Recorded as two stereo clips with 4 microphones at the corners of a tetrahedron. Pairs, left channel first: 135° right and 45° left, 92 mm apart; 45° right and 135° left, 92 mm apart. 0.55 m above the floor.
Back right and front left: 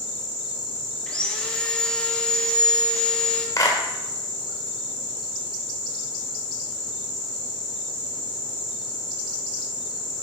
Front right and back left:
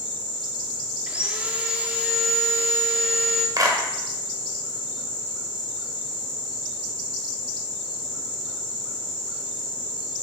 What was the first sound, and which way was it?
Sawing, 170° left.